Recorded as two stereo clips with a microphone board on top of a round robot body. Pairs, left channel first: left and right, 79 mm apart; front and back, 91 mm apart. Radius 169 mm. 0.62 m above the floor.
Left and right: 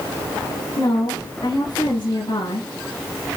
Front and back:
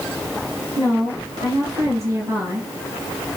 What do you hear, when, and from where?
0.8 s a woman speaking: 125° left, 5.5 m